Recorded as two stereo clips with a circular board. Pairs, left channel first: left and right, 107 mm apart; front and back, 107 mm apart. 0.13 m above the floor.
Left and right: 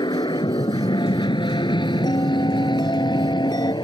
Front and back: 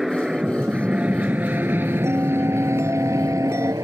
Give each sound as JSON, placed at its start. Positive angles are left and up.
{"t": 0.0, "sound": "an aircraft", "azimuth_deg": 95}
{"t": 2.0, "sound": "a bell", "azimuth_deg": 125}